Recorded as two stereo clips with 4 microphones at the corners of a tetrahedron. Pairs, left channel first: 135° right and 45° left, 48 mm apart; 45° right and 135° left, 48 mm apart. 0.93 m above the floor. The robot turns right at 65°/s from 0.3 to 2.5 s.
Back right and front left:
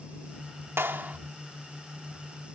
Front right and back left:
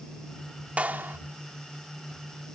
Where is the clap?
75° left; by 1.2 s 100° left.